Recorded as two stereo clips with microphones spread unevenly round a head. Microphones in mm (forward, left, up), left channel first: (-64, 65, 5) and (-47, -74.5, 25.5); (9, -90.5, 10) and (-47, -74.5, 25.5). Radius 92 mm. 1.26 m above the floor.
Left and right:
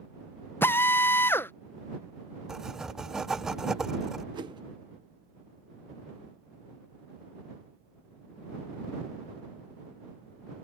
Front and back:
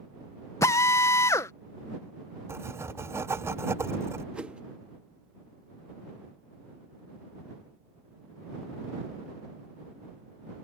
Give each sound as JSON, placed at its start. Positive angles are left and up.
{"t": 0.6, "sound": "a drill", "azimuth_deg": 20}
{"t": 2.5, "sound": "writing", "azimuth_deg": -165}
{"t": 4.3, "sound": "a whoosh", "azimuth_deg": -135}